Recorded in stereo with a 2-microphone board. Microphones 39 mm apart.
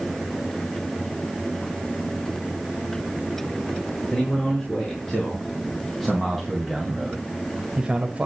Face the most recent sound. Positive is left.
turn(degrees=-35)  # may be behind; listen again after turning